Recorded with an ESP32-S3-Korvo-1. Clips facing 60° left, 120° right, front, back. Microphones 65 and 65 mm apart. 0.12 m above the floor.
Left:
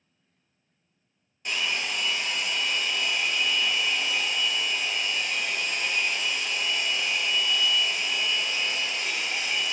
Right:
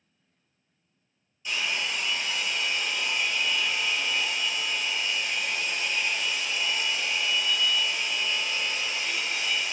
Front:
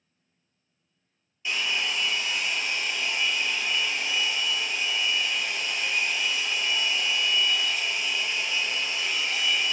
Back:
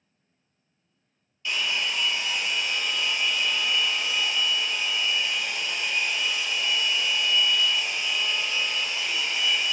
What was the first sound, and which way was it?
A hair dryer, 70° left.